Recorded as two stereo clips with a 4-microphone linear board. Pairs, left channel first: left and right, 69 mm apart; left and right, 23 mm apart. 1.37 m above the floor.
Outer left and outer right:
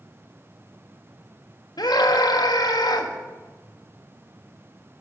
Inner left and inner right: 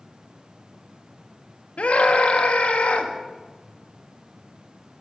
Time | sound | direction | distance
1.8 | a scream | 75° left (ahead or behind) | 1.7 m